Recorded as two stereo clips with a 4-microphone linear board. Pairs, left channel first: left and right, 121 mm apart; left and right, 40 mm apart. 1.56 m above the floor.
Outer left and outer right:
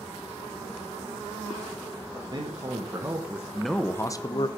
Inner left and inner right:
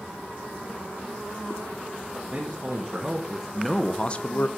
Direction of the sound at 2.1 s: 35° right (ahead or behind).